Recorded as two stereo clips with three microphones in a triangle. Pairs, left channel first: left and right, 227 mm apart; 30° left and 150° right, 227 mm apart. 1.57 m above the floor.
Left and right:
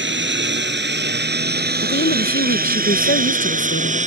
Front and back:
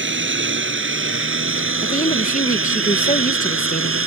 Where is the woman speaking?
75° left.